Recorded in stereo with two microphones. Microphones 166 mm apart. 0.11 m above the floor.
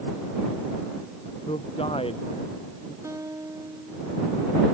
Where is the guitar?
20° right (ahead or behind).